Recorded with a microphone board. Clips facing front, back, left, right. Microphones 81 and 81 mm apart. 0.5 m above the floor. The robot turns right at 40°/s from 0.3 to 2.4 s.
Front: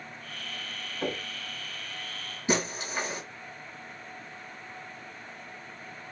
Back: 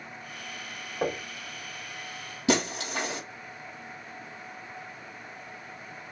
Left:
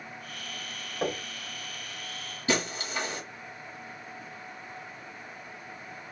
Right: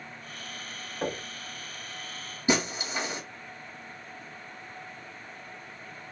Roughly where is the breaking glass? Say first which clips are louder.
Back 3 dB, right 2 dB; behind.